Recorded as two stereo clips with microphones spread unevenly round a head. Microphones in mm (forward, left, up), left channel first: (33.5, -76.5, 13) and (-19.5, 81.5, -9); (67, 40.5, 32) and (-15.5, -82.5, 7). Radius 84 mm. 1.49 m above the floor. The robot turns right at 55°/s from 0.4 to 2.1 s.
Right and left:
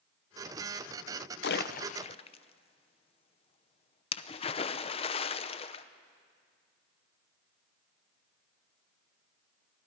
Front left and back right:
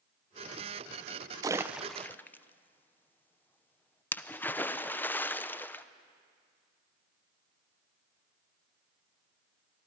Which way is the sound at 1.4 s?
55° right.